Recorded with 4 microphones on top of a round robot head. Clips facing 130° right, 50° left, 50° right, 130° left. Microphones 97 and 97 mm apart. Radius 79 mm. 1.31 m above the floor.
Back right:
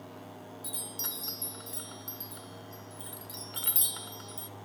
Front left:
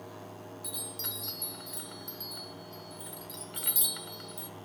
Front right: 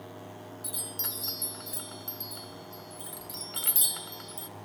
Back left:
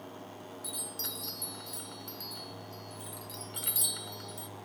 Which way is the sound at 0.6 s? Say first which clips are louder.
Even, front right 1 dB; 75° right.